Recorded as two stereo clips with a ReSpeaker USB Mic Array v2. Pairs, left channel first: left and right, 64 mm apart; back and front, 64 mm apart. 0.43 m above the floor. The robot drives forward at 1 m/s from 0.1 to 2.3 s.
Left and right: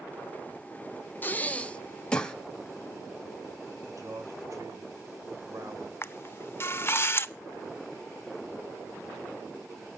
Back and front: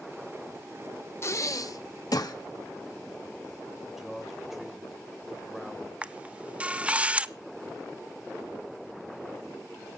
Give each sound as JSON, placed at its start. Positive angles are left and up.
{"t": 1.2, "sound": "breathing", "azimuth_deg": 140, "distance_m": 0.7}
{"t": 3.9, "sound": "a man speaking", "azimuth_deg": -85, "distance_m": 2.0}
{"t": 6.0, "sound": "a camera shutter", "azimuth_deg": 60, "distance_m": 0.6}